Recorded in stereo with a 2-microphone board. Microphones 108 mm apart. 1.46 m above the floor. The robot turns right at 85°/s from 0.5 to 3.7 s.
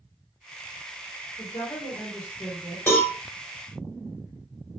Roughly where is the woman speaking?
Left.